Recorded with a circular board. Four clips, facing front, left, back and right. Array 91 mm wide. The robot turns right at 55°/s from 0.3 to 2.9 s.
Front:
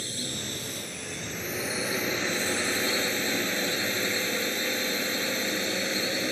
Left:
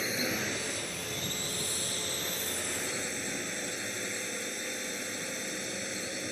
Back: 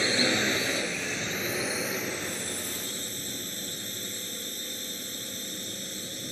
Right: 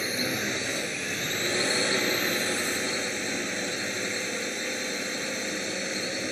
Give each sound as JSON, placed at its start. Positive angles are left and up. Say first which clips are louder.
{"t": 0.0, "sound": "a drone", "louder": "right 3 dB, back 10 dB", "azimuth_deg": -170}